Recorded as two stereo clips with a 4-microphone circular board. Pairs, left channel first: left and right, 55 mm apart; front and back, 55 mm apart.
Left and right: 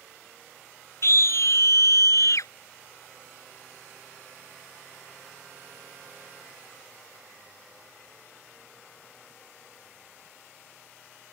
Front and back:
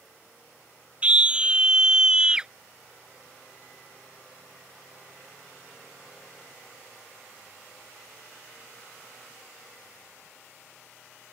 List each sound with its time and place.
1.0 s a scream: 115° left; by 2.5 s 105° left